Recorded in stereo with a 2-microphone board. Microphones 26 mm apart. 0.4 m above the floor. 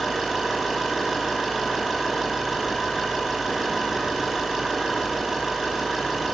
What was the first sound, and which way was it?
An engine running, 15° right (ahead or behind).